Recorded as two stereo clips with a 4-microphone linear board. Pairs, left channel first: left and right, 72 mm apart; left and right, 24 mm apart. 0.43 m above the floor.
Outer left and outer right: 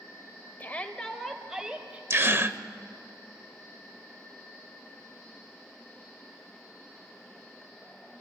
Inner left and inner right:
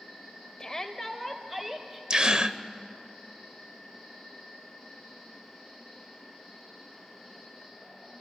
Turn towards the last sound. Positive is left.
turn(degrees=-35)  # may be behind; listen again after turning